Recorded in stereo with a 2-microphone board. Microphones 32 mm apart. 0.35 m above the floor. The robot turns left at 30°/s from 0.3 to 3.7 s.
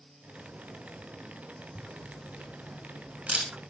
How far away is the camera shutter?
About 4 m.